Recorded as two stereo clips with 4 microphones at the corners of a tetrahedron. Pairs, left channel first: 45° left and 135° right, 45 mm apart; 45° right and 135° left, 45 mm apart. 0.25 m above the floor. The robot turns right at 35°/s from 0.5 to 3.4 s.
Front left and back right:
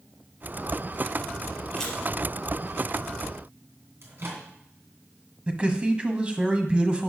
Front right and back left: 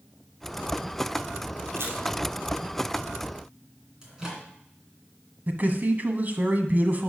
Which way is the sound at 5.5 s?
165° left.